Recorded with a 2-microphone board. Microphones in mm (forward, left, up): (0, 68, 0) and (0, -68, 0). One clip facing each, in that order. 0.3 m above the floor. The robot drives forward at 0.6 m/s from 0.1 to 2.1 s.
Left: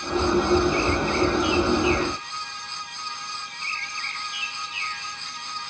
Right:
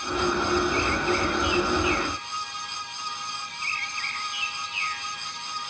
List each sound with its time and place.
Only background noise.